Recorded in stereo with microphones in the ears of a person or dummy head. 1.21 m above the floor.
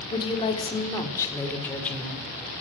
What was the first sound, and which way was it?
A woman speaking, 30° left (ahead or behind).